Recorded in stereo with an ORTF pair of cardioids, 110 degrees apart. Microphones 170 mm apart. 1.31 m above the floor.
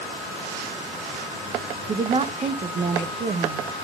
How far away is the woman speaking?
About 1.1 m.